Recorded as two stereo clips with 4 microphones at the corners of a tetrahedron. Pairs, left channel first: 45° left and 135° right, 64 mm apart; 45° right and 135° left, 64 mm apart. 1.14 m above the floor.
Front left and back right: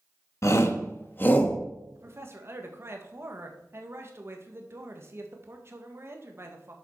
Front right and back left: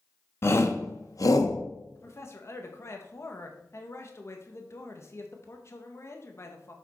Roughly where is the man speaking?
Right.